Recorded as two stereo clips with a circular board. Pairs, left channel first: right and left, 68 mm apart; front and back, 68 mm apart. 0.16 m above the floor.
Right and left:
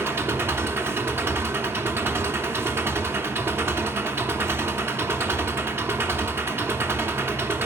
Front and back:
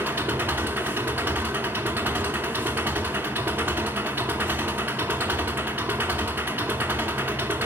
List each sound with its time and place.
0.0 s an engine running: 130° left, 0.9 m